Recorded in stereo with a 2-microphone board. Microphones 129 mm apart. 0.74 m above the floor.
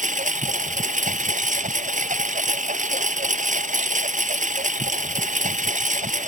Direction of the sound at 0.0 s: 85° right.